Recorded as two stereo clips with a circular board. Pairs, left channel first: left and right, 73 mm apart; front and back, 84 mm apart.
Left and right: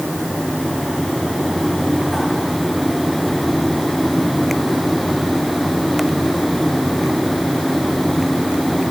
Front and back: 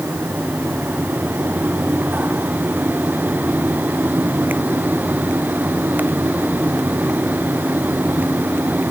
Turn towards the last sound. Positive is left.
No sound to turn to.